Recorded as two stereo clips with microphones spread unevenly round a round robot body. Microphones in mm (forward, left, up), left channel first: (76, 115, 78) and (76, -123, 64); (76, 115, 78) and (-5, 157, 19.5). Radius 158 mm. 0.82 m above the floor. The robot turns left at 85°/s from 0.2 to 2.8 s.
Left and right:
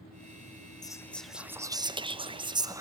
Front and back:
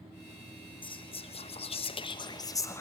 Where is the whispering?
30° left, 0.8 m; by 2.8 s 140° right, 0.8 m.